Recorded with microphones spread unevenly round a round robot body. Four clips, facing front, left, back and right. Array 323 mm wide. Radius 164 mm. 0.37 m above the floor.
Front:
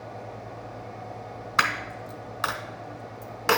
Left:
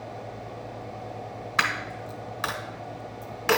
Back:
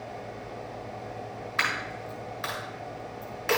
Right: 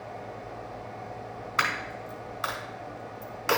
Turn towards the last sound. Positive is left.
turn(degrees=30)